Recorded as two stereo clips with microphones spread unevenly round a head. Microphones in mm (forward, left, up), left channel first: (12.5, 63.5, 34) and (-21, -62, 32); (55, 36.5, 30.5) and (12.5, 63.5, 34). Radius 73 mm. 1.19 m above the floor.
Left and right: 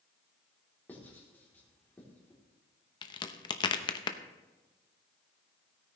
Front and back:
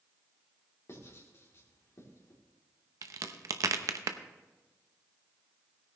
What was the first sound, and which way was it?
Writing, 5° right.